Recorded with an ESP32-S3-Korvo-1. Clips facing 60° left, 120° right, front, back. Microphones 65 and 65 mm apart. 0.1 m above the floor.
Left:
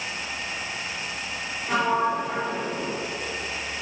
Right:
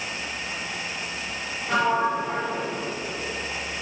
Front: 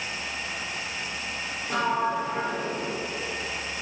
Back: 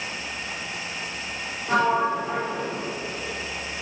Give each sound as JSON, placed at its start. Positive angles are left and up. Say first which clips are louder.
{"t": 1.7, "sound": "a sliding door", "louder": "right 1 dB, back 4 dB", "azimuth_deg": 140, "distance_m": 2.5}